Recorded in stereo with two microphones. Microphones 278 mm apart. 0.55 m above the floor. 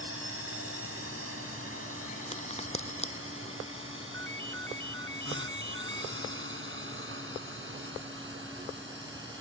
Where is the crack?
25° left (ahead or behind).